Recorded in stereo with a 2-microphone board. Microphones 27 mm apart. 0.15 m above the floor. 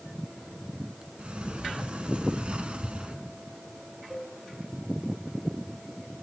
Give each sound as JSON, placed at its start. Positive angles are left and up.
{"t": 1.2, "sound": "a sliding door", "side_deg": -40, "distance_m": 1.1}
{"t": 4.1, "sound": "a cowbell", "side_deg": -15, "distance_m": 3.0}